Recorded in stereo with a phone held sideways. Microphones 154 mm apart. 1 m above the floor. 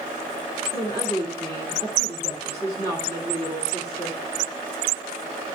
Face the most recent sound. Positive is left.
turn(degrees=-40)  # may be behind; listen again after turning